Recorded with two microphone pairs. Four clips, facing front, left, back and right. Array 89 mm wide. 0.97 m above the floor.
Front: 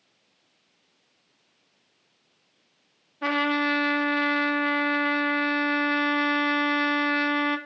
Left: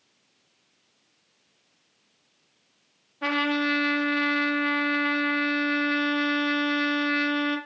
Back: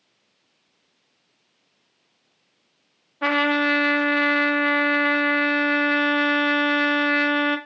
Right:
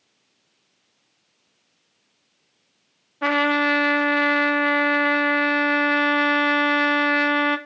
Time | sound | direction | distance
3.2 | a trumpet | 150° right | 1.6 m